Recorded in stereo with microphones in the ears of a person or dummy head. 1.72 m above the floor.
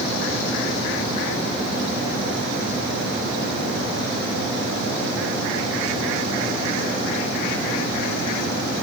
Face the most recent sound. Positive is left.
No sound to turn to.